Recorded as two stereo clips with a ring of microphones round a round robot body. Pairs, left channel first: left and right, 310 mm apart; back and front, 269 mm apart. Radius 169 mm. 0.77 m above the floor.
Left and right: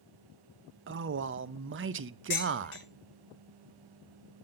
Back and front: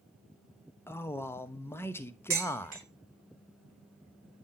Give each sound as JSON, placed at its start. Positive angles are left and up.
{"t": 0.9, "sound": "a man speaking", "azimuth_deg": -105, "distance_m": 0.6}
{"t": 2.3, "sound": "dishes clattering", "azimuth_deg": 35, "distance_m": 4.0}